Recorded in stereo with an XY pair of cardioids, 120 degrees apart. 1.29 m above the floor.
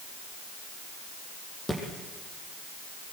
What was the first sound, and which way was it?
A thud, 10° left.